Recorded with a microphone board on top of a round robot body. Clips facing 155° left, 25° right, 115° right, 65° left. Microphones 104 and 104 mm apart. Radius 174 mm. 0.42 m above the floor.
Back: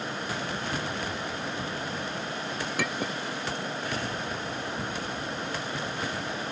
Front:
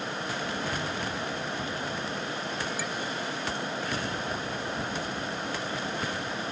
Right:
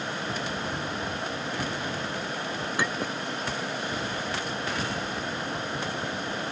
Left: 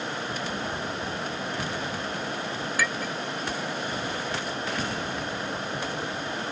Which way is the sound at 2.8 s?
Straight behind.